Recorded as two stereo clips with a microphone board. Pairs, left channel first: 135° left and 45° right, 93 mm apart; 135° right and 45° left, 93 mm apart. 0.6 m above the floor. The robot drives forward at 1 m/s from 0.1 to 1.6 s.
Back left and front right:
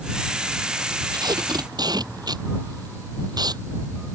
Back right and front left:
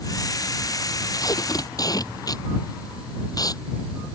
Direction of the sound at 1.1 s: 85° right.